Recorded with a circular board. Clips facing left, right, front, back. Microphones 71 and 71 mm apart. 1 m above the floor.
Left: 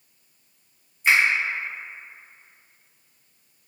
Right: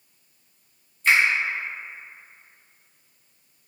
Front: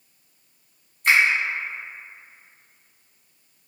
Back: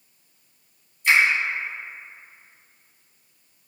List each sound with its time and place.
1.0 s a finger snap: 15° left, 1.8 m